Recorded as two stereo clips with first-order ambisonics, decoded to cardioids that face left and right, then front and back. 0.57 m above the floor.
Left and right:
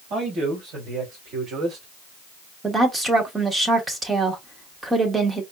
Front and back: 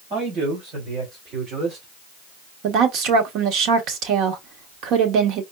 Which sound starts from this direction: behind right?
A man speaking, at 0.1 s.